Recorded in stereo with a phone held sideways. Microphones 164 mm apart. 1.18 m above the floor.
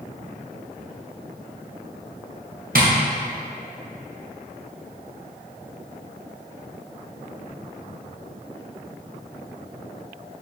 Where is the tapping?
60° right (ahead or behind), 0.8 m.